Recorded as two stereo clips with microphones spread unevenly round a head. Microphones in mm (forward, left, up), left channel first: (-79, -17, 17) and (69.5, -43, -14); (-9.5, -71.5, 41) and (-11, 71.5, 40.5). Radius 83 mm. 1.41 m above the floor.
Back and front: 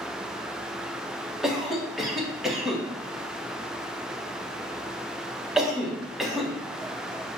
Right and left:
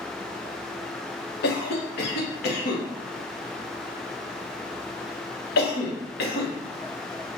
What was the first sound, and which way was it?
A cough, 100° right.